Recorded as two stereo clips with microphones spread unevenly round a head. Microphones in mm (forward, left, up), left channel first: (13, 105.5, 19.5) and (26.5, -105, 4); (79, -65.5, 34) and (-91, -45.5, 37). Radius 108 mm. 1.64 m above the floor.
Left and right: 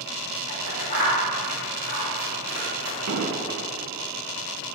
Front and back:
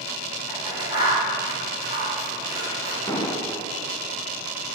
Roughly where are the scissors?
Ahead left.